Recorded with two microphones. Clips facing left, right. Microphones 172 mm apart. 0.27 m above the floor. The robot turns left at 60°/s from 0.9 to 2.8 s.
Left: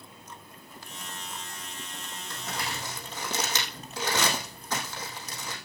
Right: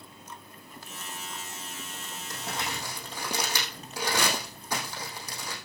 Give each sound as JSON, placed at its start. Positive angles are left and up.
{"t": 2.3, "sound": "crumpling", "side_deg": -40, "distance_m": 4.0}